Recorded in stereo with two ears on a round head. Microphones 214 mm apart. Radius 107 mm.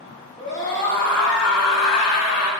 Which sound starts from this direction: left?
A scream, at 0.4 s.